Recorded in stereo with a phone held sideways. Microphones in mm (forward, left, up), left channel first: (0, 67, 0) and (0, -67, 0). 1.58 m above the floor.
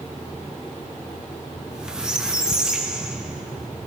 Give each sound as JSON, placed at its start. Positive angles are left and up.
{"t": 1.6, "sound": "a squeak", "side_deg": -5, "distance_m": 1.0}